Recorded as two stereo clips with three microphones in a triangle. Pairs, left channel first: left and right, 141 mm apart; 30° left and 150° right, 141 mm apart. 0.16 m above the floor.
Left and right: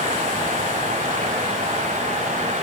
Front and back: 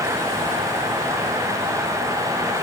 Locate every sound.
Only background noise.